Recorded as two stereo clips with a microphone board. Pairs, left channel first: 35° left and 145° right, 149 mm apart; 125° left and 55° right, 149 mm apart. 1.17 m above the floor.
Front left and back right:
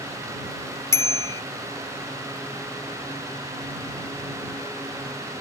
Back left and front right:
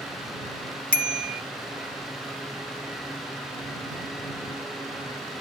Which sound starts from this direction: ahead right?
A bicycle bell, at 0.9 s.